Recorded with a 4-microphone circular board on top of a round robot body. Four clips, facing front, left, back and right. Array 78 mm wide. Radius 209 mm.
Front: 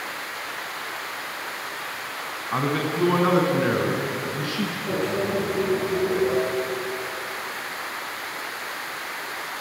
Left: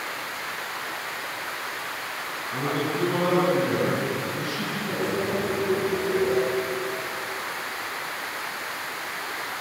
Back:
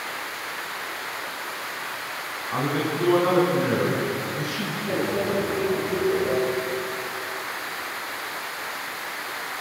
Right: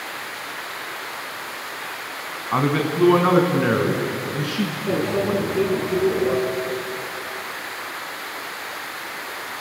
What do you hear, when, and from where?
2.5 s a man speaking: 75° right, 4 m; by 4.8 s 70° right, 5.5 m
4.9 s a microwave: 80° right, 4.5 m